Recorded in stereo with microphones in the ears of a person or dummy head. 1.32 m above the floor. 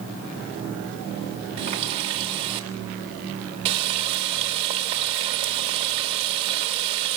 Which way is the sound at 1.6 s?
30° right (ahead or behind).